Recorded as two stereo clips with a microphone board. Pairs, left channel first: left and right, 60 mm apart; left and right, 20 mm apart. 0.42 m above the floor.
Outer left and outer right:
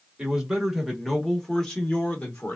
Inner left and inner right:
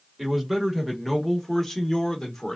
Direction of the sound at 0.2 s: 10° right (ahead or behind).